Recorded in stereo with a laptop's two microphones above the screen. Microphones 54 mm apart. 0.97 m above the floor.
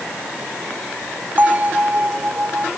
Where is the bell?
35° right (ahead or behind).